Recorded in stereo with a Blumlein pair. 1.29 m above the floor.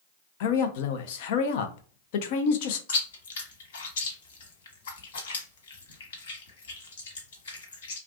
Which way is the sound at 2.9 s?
65° left.